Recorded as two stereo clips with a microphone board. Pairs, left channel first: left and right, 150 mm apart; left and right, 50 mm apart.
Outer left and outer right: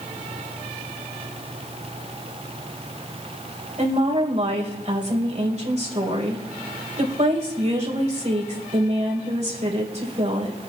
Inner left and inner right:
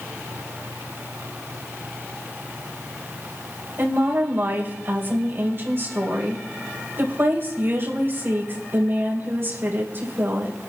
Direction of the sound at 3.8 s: 45° right (ahead or behind).